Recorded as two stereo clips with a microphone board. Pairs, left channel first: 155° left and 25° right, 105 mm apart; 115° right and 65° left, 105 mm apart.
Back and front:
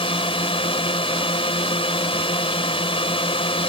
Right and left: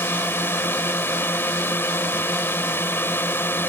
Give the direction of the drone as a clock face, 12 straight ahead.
6 o'clock.